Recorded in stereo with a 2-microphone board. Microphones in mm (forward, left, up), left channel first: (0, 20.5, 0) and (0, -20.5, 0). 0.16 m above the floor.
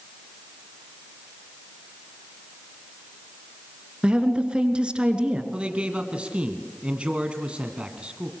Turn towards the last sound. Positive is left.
turn(degrees=-25)  # may be behind; listen again after turning